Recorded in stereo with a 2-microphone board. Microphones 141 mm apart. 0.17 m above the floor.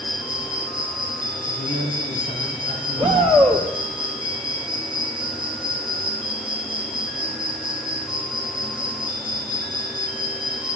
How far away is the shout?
About 6.5 m.